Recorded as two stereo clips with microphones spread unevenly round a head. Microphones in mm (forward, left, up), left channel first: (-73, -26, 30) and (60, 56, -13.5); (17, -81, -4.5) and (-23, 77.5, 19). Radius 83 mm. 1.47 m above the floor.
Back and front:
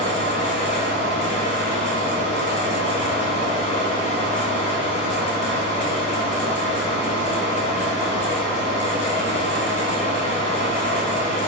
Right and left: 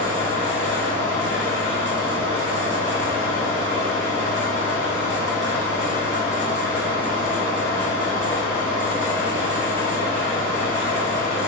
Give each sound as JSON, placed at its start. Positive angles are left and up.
{"t": 0.0, "sound": "a fan", "azimuth_deg": 170, "distance_m": 1.8}